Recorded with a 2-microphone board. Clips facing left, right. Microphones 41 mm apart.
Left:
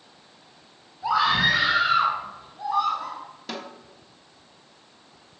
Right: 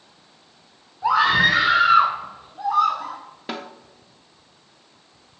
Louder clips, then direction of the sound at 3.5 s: Right 4 dB; 30° right (ahead or behind).